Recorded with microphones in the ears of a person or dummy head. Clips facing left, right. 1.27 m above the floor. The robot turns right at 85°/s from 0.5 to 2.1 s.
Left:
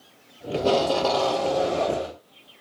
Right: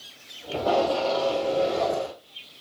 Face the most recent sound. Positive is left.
turn(degrees=160)